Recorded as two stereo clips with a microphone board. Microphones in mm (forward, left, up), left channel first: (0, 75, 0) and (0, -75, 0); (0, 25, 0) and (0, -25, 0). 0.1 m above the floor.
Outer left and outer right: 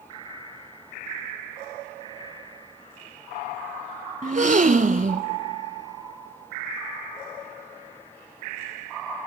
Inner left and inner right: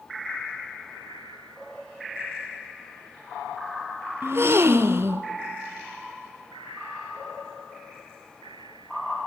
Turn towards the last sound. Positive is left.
turn(degrees=-55)  # may be behind; listen again after turning